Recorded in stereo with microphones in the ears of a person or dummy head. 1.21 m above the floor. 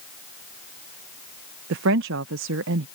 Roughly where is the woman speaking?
Right.